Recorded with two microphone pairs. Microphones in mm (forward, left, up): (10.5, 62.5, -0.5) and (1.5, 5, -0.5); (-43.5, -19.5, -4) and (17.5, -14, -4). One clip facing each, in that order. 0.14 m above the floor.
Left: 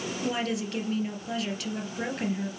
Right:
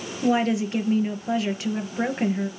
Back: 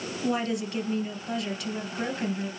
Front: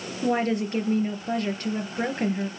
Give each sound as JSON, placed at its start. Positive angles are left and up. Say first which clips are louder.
{"t": 0.2, "sound": "a woman speaking", "louder": "right 10 dB, front 4 dB", "azimuth_deg": -40, "distance_m": 3.0}